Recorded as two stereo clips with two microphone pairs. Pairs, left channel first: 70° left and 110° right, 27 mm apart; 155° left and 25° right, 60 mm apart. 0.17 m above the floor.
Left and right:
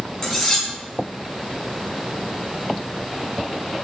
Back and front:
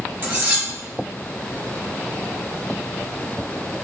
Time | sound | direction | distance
0.2 | cutlery clinking | 5° left | 1.1 m